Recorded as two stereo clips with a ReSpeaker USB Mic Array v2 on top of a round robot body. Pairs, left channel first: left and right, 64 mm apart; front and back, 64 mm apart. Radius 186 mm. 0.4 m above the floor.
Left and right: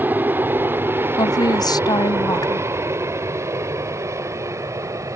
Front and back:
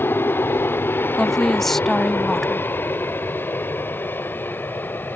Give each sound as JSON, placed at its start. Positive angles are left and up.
{"t": 0.0, "sound": "an aircraft", "azimuth_deg": -40}
{"t": 1.2, "sound": "a woman speaking", "azimuth_deg": 85}